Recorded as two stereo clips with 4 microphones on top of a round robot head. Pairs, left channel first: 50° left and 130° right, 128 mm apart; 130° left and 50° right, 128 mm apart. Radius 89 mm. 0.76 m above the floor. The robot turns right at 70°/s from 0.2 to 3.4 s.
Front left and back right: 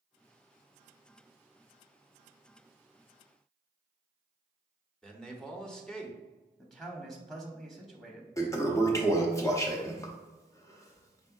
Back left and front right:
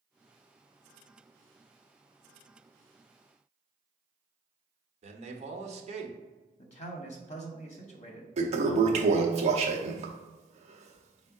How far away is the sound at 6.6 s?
About 0.8 m.